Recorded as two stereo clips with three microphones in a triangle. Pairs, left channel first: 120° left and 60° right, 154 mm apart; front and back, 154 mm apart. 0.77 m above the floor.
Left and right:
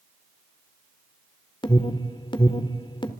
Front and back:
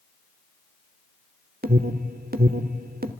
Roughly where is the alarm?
Behind.